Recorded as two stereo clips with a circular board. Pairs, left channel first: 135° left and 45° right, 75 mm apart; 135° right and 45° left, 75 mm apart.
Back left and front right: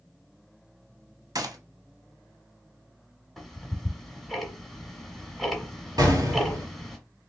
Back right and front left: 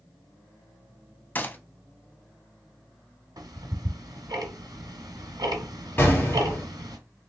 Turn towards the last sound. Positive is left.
turn(degrees=-70)